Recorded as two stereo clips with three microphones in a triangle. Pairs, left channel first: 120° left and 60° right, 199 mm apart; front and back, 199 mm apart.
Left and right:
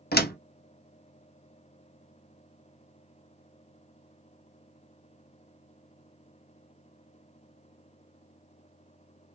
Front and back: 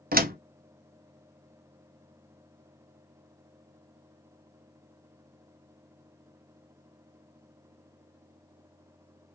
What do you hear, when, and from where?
0.1 s a door slam: 145° left, 0.5 m